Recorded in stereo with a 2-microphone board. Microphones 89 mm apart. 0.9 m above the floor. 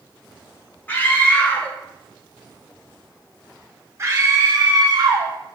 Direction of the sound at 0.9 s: 20° left (ahead or behind).